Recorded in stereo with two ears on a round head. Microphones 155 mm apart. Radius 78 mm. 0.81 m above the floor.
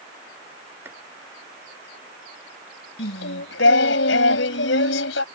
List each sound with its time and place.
0.8 s chopping: 15° right (ahead or behind)
3.0 s singing: 80° left